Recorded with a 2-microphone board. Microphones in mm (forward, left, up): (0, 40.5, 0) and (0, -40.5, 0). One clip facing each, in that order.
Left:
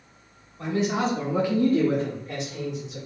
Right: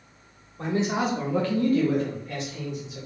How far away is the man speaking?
About 0.9 m.